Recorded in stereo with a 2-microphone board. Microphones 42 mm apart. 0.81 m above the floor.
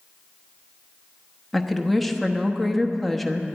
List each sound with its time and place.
1.5 s a woman speaking: centre (ahead or behind), 1.0 m